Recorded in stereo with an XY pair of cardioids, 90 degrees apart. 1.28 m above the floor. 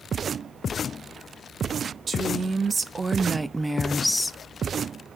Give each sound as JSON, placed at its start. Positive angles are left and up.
{"t": 2.1, "sound": "a woman speaking", "azimuth_deg": -45, "distance_m": 1.5}